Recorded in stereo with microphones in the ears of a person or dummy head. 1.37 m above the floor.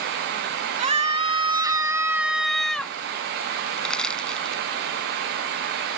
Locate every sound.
0.8 s a scream: 30° right (ahead or behind); by 3.0 s 5° left (ahead or behind)
3.8 s crushing: 5° left (ahead or behind)